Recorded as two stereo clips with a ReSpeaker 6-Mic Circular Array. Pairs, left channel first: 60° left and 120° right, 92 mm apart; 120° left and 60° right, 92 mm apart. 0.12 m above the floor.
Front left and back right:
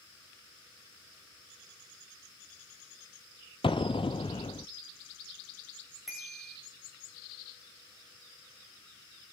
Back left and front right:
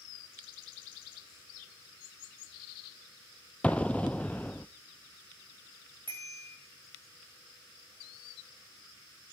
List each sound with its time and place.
3.6 s an explosion: 45° left, 0.8 m
6.1 s a bicycle bell: 35° right, 7.5 m